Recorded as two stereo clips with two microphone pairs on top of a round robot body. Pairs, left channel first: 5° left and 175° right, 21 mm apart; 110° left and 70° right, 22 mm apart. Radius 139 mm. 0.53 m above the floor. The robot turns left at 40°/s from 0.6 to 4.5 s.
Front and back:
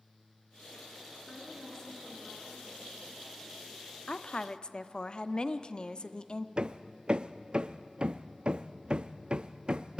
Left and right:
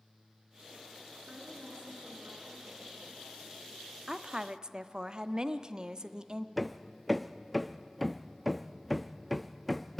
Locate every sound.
1.3 s a woman speaking: 15° right, 8.5 m; by 2.9 s 80° right, 8.5 m
4.1 s a woman speaking: 10° right, 1.0 m; by 6.5 s 30° right, 1.0 m
6.6 s hammering: 155° right, 0.8 m